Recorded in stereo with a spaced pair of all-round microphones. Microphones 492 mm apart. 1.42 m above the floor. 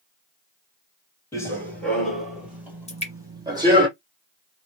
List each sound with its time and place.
1.3 s running footsteps: 5° left (ahead or behind), 1.5 m; by 3.9 s 10° right (ahead or behind), 1.9 m
2.9 s dripping: 15° left (ahead or behind), 1.0 m